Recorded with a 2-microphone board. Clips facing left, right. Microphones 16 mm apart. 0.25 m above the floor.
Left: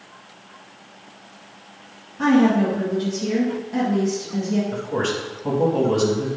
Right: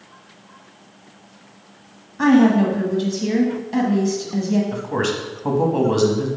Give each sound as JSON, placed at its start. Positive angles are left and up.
{"t": 2.2, "sound": "a woman speaking", "side_deg": -45, "distance_m": 1.4}
{"t": 4.7, "sound": "a man speaking", "side_deg": -45, "distance_m": 1.5}